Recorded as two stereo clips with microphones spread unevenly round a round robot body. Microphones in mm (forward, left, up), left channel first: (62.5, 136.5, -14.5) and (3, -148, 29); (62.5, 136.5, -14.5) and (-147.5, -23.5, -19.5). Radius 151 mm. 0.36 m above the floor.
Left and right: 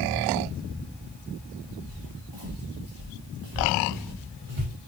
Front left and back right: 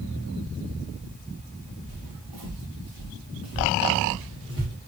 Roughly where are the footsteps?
Behind right.